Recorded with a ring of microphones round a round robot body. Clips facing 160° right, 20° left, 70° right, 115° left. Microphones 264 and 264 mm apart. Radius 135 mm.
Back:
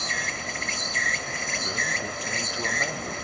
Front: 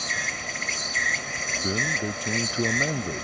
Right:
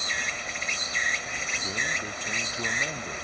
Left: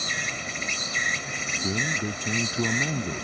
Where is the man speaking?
90° left.